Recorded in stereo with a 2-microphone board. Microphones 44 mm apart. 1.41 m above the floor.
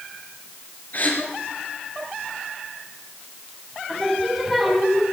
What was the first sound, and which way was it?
A gasp, 45° left (ahead or behind).